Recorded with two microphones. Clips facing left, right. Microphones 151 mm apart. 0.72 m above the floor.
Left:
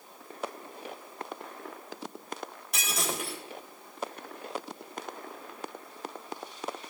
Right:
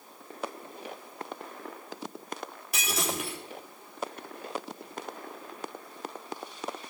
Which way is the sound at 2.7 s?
Centre (ahead or behind).